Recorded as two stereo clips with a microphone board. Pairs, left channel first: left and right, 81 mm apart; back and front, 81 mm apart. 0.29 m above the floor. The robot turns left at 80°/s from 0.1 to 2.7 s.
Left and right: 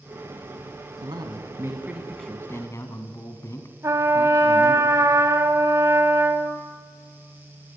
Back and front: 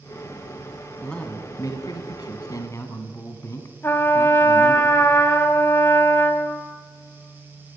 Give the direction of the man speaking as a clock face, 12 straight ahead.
3 o'clock.